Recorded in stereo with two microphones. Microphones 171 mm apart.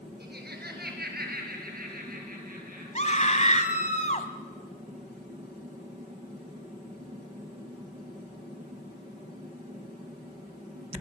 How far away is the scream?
About 1.7 m.